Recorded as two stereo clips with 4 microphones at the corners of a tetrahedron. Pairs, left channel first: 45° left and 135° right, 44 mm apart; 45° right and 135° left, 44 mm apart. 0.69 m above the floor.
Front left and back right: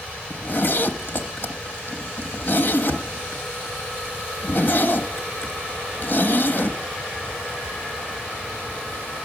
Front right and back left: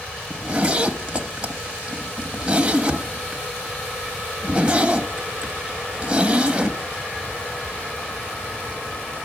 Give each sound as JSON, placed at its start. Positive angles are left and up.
{"t": 0.3, "sound": "a zipper", "azimuth_deg": 75, "distance_m": 0.8}